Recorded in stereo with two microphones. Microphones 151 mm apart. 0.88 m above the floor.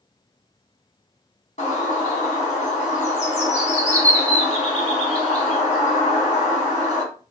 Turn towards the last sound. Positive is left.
turn(degrees=45)  # may be behind; listen again after turning